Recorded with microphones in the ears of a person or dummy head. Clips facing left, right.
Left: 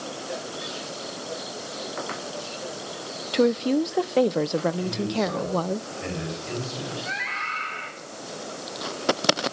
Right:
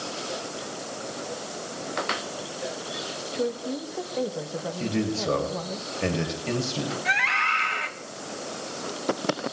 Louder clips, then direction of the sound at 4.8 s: Left 1 dB; 75° right (ahead or behind).